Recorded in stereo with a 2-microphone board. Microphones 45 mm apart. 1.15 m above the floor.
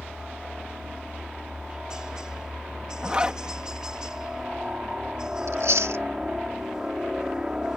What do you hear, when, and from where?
0.0 s a helicopter: 15° right (ahead or behind)
3.0 s a zipper: 20° right (ahead or behind)
5.5 s chewing: 85° right